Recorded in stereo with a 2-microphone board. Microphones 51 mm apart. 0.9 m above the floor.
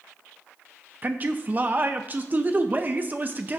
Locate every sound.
1.0 s a man speaking: 35° right (ahead or behind), 0.5 m